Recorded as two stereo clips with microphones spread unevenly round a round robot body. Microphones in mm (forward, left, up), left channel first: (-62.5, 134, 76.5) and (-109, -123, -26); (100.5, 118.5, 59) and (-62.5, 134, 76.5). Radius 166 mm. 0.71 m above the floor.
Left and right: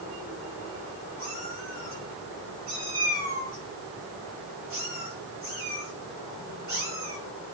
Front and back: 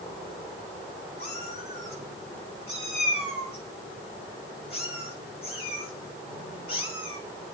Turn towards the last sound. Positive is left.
turn(degrees=-55)